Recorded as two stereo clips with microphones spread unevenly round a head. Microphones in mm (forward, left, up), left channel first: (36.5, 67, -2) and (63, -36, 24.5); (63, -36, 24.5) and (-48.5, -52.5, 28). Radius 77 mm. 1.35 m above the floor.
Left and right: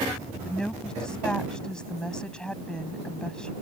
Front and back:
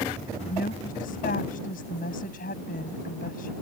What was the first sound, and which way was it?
A woman speaking, 20° left.